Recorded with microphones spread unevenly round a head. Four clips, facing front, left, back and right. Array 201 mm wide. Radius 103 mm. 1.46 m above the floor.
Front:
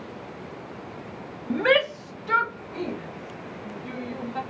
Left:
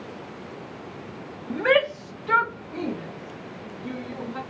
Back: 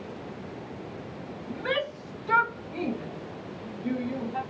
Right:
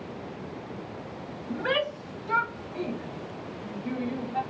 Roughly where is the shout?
Ahead left.